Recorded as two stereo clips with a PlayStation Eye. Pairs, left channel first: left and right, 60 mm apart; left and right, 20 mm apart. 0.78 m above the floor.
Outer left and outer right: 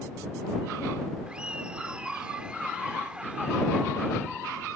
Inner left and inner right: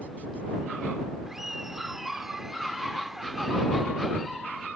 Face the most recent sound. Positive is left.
turn(degrees=-15)  # may be behind; listen again after turning